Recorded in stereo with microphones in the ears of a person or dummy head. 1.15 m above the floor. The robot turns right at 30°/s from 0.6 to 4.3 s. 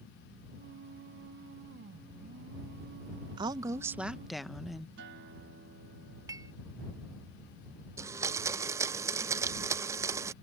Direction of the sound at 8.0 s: 15° right (ahead or behind).